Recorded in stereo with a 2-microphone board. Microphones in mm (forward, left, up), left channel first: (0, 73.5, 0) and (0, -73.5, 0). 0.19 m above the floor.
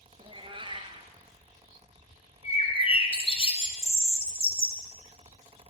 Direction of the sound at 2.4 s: 45° left (ahead or behind).